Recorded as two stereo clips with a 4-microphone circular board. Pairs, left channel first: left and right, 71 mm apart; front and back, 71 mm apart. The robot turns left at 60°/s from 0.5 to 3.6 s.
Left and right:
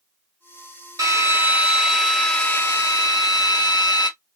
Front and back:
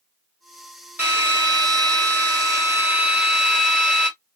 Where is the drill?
120° right, 1.3 m; by 4.1 s 80° left, 1.3 m.